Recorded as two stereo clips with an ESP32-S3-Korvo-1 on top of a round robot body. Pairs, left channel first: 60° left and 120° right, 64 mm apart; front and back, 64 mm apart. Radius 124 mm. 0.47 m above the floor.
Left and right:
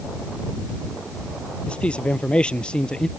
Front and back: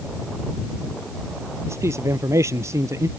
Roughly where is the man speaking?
Behind left.